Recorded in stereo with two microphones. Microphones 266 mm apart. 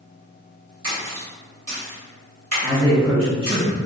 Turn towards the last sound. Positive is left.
turn(degrees=-5)  # may be behind; listen again after turning